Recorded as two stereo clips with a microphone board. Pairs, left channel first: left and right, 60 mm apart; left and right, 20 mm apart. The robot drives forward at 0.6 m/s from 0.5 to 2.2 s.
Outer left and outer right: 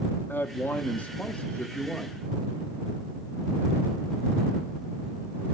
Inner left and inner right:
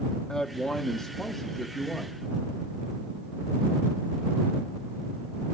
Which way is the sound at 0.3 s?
30° left (ahead or behind).